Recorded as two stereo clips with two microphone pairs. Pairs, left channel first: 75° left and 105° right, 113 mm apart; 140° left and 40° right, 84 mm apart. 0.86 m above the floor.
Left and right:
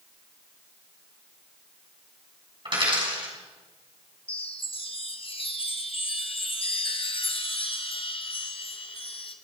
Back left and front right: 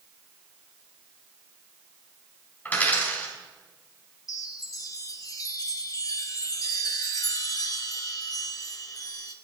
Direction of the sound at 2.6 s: 150° right.